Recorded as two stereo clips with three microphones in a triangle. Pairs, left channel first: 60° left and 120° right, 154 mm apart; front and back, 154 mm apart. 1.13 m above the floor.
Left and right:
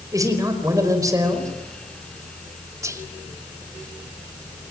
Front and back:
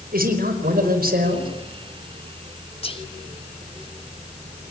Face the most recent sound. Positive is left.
turn(degrees=-50)